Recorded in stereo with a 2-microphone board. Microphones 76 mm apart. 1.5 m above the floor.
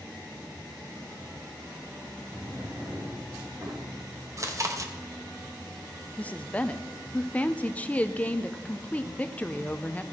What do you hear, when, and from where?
2.3 s a drawer: 45° right (ahead or behind), 4 m
4.4 s chewing: 45° right (ahead or behind), 0.9 m
6.2 s a woman speaking: 20° left (ahead or behind), 0.6 m